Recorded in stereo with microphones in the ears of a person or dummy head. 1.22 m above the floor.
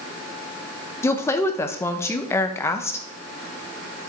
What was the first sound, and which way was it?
A woman speaking, 15° left (ahead or behind).